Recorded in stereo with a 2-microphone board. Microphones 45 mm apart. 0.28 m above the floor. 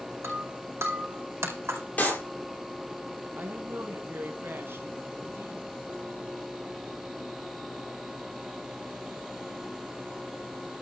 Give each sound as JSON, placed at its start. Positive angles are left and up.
{"t": 0.2, "sound": "breaking glass", "side_deg": -75, "distance_m": 4.5}
{"t": 2.0, "sound": "a clap", "side_deg": 35, "distance_m": 6.5}
{"t": 3.4, "sound": "a woman speaking", "side_deg": -60, "distance_m": 2.0}